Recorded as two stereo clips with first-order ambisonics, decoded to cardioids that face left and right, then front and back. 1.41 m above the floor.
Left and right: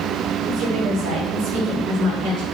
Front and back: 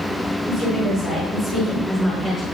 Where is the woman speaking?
45° right, 6 m; by 2.5 s 70° right, 5 m.